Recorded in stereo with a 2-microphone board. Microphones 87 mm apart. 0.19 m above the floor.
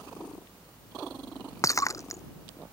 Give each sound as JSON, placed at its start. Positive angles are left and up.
{"t": 1.6, "sound": "breaking glass", "side_deg": 35}